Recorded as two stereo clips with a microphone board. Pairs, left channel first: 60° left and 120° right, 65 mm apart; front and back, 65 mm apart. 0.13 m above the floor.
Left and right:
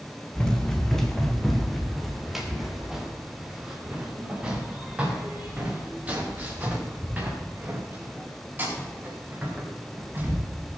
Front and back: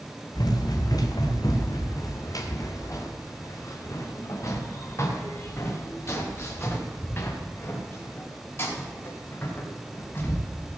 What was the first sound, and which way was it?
Running footsteps, 20° right.